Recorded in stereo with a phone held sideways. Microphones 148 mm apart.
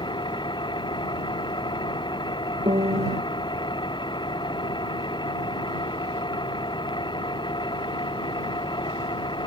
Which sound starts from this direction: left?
An engine running, at 0.0 s.